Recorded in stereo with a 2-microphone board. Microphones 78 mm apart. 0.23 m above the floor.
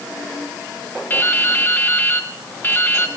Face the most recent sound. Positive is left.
turn(degrees=25)  # may be behind; listen again after turning